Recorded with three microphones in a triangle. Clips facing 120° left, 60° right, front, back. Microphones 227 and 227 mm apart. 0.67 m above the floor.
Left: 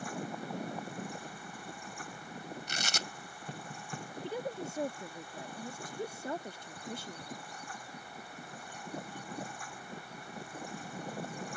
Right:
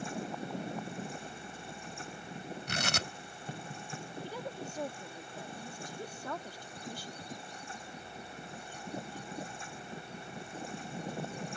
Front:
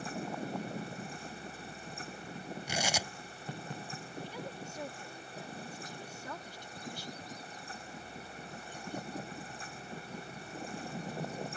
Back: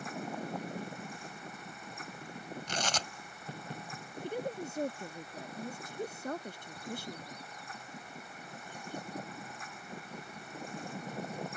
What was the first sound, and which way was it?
Tearing paper, 80° right.